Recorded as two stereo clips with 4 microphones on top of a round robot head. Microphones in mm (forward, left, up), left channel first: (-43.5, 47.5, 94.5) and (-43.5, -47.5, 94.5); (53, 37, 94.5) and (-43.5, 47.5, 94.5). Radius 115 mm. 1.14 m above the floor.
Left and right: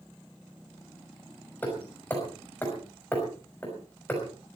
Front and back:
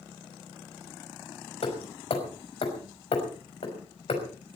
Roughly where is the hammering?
Ahead.